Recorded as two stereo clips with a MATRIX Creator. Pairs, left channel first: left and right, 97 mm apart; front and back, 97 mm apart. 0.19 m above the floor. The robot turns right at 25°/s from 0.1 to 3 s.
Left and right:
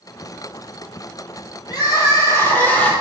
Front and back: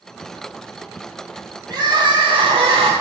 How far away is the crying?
About 2.5 m.